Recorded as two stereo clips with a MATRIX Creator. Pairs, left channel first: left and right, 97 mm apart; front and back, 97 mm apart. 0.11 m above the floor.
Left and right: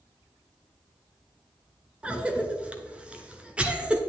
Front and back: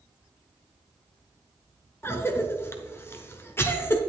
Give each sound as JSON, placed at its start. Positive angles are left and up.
{"t": 2.0, "sound": "a cough", "azimuth_deg": -25, "distance_m": 1.3}